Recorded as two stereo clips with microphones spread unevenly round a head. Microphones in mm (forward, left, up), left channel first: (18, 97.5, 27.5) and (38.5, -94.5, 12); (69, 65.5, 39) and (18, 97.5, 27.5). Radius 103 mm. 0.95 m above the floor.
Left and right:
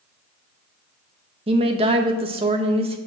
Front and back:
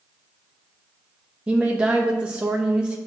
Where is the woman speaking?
140° right, 0.8 m.